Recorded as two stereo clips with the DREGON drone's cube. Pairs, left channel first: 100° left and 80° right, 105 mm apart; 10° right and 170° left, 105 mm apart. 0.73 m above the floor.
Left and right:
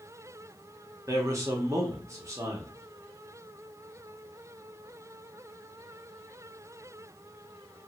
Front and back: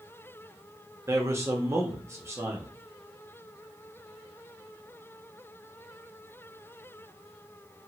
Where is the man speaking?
130° right, 1.0 m.